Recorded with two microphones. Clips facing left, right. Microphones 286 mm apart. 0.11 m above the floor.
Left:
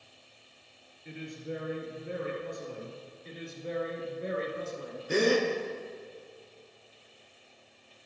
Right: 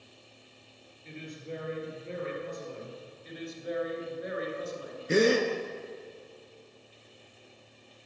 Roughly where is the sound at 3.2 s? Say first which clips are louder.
Right 2 dB; left.